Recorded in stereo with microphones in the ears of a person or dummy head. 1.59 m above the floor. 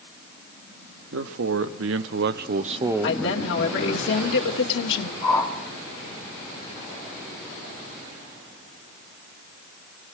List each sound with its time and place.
1.1 s a man speaking: 90° right, 1.7 m; by 4.0 s 35° left (ahead or behind), 1.2 m
3.0 s a woman speaking: 75° left (ahead or behind), 2.5 m
5.2 s a whoosh: 20° left (ahead or behind), 6.5 m